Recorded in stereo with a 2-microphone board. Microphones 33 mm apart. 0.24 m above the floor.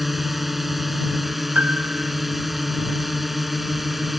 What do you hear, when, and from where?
0.0 s a drone: 5° right (ahead or behind)
1.6 s a piano: 60° right (ahead or behind)